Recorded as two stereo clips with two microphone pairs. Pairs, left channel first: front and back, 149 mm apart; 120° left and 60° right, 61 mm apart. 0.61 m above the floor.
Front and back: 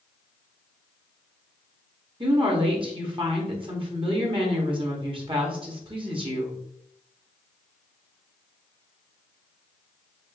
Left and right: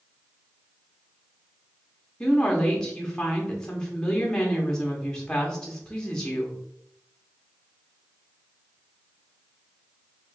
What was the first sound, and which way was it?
A woman speaking, 175° right.